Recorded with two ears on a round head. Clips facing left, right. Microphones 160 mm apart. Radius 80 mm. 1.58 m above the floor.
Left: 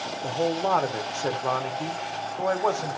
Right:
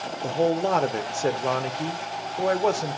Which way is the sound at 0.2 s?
20° right (ahead or behind).